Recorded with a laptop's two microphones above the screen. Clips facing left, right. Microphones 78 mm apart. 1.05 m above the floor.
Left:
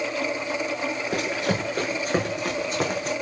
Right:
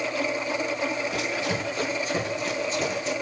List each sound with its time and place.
1.1 s running footsteps: 55° left (ahead or behind), 5.5 m